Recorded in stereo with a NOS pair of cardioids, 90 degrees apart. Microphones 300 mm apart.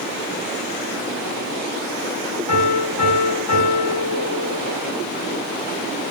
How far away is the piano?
About 1.9 m.